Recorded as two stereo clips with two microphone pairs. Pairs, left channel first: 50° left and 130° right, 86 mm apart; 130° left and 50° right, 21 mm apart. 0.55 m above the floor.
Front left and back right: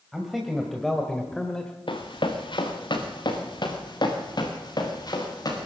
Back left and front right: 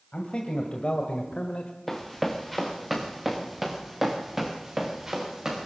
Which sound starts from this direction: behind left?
A man speaking, at 0.1 s.